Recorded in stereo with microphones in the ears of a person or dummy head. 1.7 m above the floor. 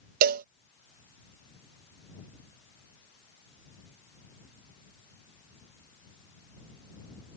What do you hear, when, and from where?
0.2 s a cowbell: 55° right (ahead or behind)